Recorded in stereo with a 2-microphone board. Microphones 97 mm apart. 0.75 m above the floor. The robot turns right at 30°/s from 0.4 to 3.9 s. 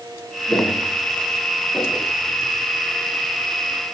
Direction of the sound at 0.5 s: Centre (ahead or behind).